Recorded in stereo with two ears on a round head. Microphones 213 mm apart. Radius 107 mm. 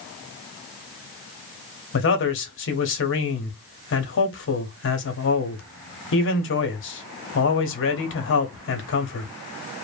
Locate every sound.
1.9 s a man speaking: 50° left (ahead or behind), 0.8 m